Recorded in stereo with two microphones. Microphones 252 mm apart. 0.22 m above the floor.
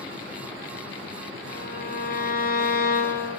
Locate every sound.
1.5 s a violin: 35° left (ahead or behind), 1.5 m